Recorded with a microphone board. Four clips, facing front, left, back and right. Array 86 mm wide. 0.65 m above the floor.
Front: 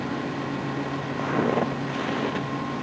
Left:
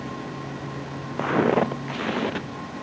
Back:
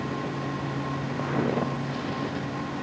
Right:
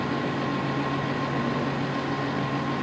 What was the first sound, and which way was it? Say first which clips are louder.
Footsteps: left 6 dB, front 3 dB; 85° left.